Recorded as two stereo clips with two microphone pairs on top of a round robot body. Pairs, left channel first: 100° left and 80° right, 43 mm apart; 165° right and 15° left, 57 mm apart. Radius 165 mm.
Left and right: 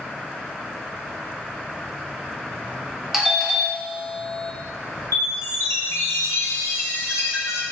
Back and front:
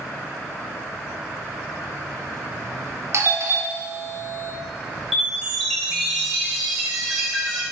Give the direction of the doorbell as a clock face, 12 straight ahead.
11 o'clock.